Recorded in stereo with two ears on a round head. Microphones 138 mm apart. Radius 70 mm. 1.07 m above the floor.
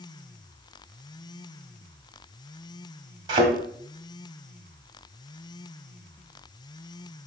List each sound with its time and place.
3.3 s a thud: 35° right (ahead or behind), 1.5 m